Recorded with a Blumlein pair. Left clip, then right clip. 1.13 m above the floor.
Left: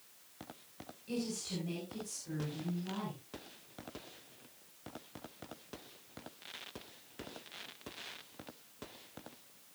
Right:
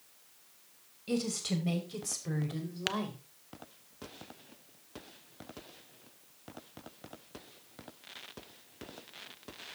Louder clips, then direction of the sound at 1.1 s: Right 6 dB; 60° right.